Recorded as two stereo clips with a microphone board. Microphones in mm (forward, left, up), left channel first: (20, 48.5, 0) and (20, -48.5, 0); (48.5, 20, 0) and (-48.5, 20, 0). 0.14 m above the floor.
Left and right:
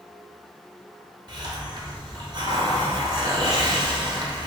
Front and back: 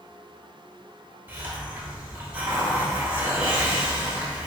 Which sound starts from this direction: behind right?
A hiss, at 1.3 s.